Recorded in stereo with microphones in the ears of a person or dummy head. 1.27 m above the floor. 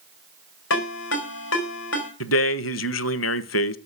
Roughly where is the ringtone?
Left.